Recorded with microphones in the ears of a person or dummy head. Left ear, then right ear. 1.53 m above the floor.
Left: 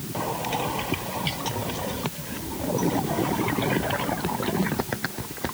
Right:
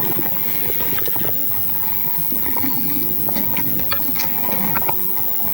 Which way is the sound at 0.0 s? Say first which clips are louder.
Right 1 dB; 85° right.